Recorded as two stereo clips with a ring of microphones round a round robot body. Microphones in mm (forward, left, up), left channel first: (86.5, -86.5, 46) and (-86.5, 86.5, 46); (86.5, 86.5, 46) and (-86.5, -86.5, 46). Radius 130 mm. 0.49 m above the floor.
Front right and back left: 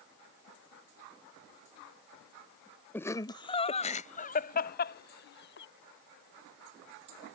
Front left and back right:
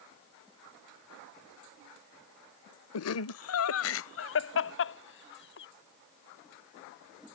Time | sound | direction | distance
2.9 | laughter | 35° left | ?